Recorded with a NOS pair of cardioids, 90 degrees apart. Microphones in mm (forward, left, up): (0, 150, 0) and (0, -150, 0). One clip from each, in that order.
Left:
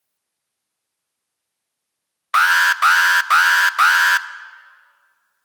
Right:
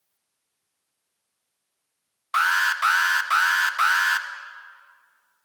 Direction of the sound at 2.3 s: 35° left.